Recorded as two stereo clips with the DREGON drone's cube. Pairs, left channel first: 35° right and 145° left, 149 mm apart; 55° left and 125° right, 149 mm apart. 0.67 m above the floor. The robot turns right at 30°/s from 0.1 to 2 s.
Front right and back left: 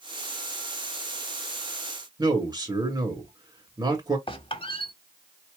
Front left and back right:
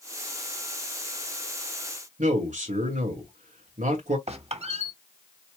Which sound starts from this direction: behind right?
A man speaking, at 2.2 s.